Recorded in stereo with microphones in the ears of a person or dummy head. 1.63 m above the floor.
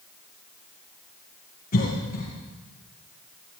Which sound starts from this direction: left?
A cough, at 1.7 s.